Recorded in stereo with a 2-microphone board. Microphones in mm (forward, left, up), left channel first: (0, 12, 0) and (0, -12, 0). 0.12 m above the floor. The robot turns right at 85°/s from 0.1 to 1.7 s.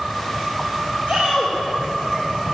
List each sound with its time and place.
1.1 s a shout: 130° right, 4 m; by 1.6 s 90° right, 4 m